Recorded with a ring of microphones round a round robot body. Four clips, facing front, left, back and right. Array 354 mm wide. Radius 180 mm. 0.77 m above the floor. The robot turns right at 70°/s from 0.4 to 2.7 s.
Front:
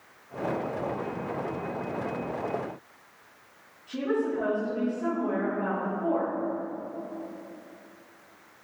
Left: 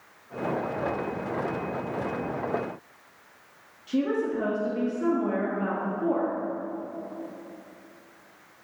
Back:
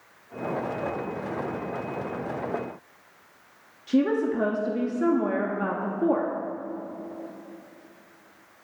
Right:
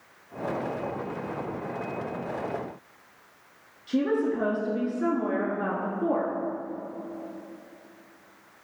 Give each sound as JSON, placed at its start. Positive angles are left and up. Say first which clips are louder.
{"t": 3.9, "sound": "a woman speaking", "louder": "right 1 dB, back 5 dB", "azimuth_deg": -170, "distance_m": 1.6}